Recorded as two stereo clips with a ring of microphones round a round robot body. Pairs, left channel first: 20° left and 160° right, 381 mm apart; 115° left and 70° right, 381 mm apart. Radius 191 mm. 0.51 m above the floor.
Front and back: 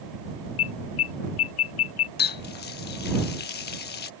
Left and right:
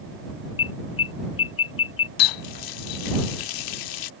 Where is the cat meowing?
I don't hear a cat meowing.